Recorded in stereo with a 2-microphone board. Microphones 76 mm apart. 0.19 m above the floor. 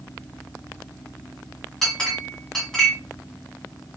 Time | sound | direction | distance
1.8 | a clink | 5° left (ahead or behind) | 0.9 m